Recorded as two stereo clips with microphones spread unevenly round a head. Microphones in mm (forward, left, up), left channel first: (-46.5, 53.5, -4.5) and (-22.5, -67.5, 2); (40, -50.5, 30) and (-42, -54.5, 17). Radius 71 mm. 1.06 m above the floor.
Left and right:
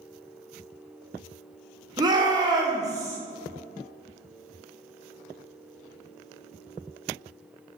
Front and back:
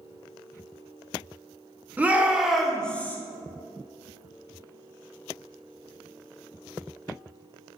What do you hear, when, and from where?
2.0 s a shout: 125° right, 1.0 m; by 3.2 s 50° right, 0.7 m